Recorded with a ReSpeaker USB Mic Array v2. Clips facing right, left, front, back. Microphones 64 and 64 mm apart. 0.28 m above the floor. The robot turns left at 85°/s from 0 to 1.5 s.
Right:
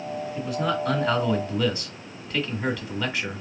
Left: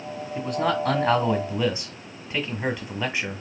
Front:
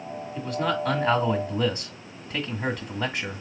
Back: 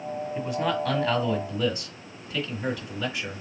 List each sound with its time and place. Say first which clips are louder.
0.3 s a man speaking: left 3 dB, front 1 dB; 130° left, 1.6 m; by 3.4 s 35° left, 1.6 m